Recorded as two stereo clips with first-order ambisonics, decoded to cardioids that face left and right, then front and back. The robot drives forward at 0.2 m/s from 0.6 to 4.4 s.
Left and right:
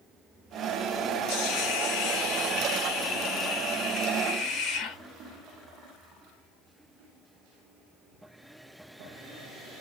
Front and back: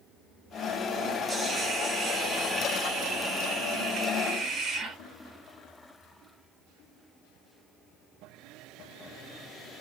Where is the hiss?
100° left, 0.8 m; by 5.0 s 135° left, 1.1 m.